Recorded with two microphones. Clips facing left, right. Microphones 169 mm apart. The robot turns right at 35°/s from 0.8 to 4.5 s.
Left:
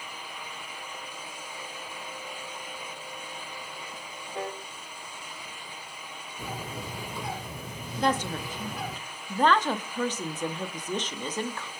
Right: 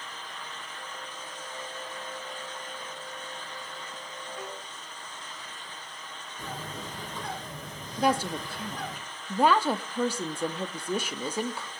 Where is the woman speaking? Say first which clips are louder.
Right 1 dB; 10° right (ahead or behind), 1.3 m.